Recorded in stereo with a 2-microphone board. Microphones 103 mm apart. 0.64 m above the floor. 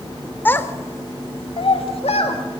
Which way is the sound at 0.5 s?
20° left (ahead or behind).